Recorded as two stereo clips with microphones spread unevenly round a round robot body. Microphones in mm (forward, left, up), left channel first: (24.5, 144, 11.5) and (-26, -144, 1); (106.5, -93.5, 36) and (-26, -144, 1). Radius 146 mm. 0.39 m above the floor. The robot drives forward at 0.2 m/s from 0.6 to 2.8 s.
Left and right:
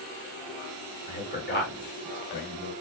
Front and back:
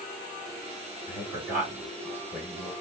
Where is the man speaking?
130° left, 1.8 m; by 2.7 s 140° left, 1.9 m.